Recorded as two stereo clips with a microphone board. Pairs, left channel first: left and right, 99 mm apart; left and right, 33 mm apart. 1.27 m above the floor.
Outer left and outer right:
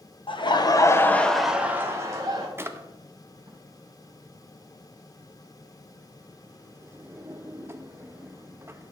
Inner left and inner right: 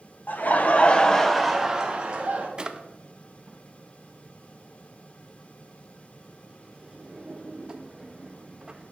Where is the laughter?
55° left (ahead or behind), 1.0 m; by 2.5 s 40° right (ahead or behind), 1.3 m.